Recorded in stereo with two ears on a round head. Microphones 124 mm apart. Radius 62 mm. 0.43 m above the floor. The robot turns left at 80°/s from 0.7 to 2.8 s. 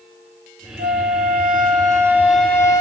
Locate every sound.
0.8 s a flute: 60° right, 1.7 m; by 2.8 s 140° left, 1.7 m